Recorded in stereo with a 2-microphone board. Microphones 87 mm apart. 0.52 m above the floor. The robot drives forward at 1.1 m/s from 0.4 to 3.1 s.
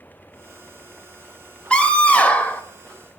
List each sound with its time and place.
1.7 s a scream: 15° left (ahead or behind), 2.5 m; by 2.6 s 20° left (ahead or behind), 1.5 m